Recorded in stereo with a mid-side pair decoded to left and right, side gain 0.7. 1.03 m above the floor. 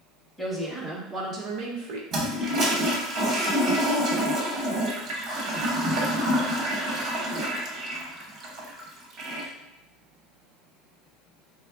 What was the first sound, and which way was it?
A woman speaking, 10° right.